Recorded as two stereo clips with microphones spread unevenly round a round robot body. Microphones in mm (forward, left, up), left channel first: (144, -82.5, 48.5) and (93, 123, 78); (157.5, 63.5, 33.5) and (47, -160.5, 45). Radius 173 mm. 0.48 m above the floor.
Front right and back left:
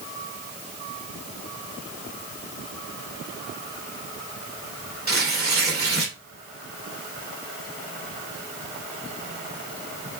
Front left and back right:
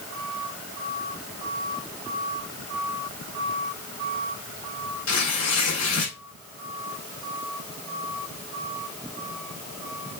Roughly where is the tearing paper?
Ahead left.